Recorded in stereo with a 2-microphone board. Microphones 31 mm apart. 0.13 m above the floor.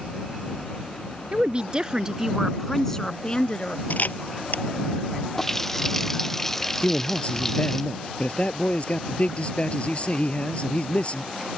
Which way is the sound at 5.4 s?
10° left (ahead or behind).